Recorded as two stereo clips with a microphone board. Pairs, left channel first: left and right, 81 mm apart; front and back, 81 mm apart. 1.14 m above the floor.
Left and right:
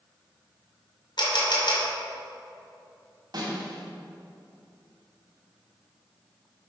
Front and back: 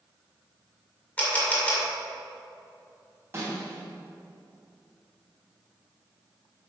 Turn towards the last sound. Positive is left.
turn(degrees=-125)